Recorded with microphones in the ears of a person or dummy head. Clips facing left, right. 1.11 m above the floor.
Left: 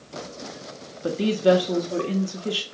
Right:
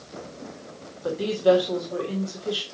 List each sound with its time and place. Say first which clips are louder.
1.0 s a woman speaking: left 1 dB; 35° left (ahead or behind), 1.8 m